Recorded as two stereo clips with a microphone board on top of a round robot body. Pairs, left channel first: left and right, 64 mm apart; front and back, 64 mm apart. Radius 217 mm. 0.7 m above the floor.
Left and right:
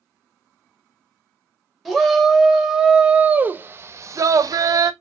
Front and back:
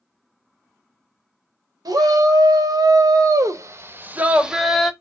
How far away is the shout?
About 1.4 m.